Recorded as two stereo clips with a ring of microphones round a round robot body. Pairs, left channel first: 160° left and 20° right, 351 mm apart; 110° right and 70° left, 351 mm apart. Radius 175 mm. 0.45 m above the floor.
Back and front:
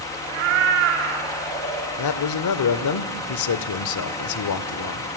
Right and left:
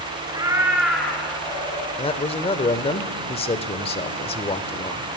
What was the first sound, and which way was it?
A cat meowing, 10° right.